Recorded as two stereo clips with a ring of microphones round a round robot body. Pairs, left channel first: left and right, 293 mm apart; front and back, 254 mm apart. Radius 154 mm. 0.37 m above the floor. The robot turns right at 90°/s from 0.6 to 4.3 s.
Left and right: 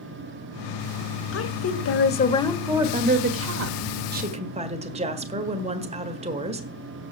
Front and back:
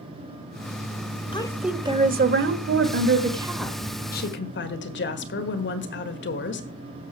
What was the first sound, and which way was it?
A woman speaking, 65° left.